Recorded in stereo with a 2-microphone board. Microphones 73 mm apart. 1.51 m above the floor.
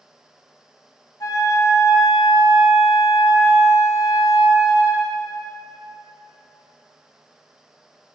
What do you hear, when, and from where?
1.2 s a flute: 55° left (ahead or behind), 1.6 m